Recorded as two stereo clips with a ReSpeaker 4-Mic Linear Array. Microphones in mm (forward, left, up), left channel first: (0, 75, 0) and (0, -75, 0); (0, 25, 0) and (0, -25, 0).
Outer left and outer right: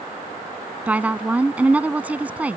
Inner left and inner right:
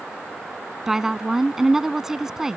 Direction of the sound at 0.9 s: 10° right (ahead or behind).